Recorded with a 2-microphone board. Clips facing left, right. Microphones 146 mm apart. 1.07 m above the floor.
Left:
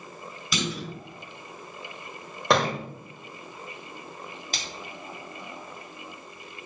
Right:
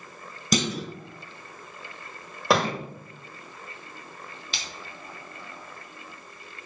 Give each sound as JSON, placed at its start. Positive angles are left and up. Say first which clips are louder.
{"t": 0.5, "sound": "a clunk", "louder": "right 5 dB", "side_deg": -45, "distance_m": 0.9}
{"t": 2.5, "sound": "a thud", "louder": "even", "side_deg": -5, "distance_m": 1.0}
{"t": 4.5, "sound": "a splash", "louder": "left 2 dB", "side_deg": 50, "distance_m": 1.6}